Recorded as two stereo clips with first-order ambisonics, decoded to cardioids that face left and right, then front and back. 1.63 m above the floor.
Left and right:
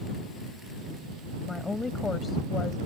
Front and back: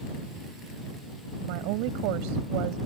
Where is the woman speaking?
170° left; by 2.8 s 160° left.